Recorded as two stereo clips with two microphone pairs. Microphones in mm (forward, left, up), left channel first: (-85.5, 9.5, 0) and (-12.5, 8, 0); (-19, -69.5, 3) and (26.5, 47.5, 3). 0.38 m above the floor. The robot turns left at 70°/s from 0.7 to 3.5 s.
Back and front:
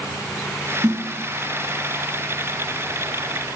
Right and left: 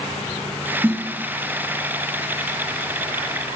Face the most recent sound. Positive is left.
turn(degrees=170)